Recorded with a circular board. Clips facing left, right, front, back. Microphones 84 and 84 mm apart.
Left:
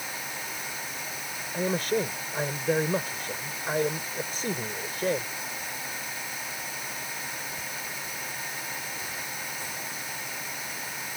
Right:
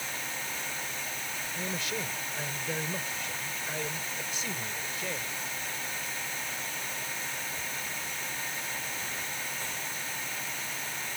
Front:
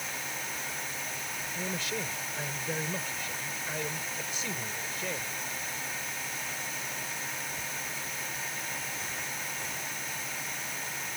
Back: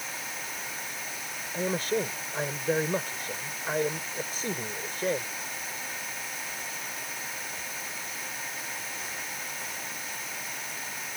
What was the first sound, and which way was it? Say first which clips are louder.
A man speaking: left 10 dB, back 9 dB; 130° left.